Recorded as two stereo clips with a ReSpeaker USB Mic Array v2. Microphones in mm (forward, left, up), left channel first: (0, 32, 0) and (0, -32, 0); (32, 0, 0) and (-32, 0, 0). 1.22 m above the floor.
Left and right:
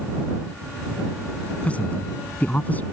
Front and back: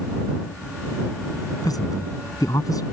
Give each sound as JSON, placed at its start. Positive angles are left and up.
{"t": 1.6, "sound": "a man speaking", "azimuth_deg": 20}